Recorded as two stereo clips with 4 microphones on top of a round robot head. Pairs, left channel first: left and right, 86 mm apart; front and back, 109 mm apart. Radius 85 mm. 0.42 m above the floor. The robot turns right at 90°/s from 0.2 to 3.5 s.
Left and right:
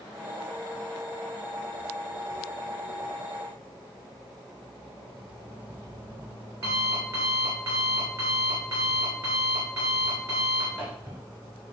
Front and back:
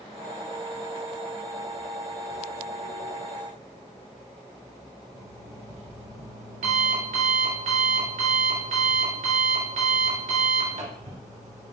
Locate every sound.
5.1 s an alarm clock: 160° right, 3 m